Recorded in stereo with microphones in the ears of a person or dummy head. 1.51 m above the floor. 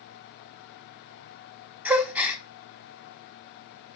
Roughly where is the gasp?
Centre.